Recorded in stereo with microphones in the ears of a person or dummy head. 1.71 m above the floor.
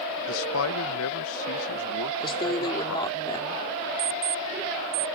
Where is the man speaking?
70° left (ahead or behind).